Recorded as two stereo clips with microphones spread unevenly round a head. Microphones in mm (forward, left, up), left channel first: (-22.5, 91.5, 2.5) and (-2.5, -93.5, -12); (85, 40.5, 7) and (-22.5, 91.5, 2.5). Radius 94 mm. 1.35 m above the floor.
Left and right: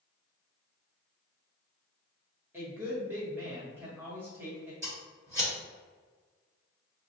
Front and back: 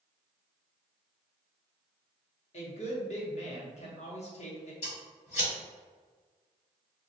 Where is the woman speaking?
5° right, 1.2 m.